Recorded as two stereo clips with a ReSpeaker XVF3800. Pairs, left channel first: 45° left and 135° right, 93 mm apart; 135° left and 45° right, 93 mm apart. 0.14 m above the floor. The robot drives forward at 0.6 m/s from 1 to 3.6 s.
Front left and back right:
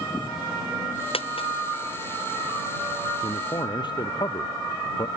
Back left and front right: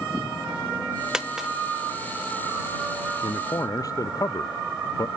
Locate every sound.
1.1 s a dropped coin: 40° left
3.2 s a man speaking: 80° left; by 5.1 s 85° left